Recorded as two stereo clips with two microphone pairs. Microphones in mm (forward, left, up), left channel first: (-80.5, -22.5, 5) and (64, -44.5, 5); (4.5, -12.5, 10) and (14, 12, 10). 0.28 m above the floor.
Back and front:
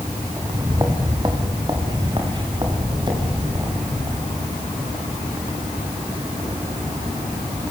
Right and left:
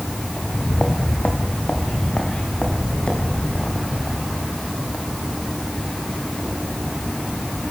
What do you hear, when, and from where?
0.4 s footsteps: 75° right, 3 m; by 4.6 s 65° right, 9 m